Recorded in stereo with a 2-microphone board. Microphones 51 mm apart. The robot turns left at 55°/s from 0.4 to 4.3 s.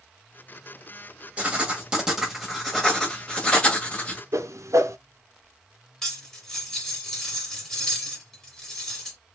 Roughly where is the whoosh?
Right.